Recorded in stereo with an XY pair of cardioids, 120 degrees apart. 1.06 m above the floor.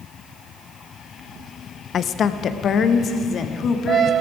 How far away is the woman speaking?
About 0.6 m.